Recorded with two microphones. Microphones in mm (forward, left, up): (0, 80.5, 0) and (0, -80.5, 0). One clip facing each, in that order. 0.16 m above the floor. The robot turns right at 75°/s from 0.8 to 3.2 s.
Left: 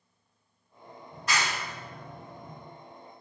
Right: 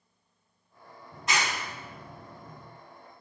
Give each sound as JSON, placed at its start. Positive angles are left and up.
{"t": 1.1, "sound": "a clap", "side_deg": -20, "distance_m": 0.9}